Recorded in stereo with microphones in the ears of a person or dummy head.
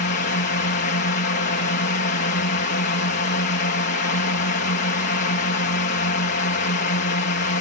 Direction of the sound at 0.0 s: 50° left (ahead or behind).